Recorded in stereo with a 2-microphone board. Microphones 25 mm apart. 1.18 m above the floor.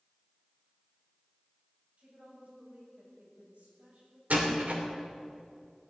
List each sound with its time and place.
2.0 s a woman speaking: 85° right, 7.5 m
4.3 s a door slam: 80° right, 3 m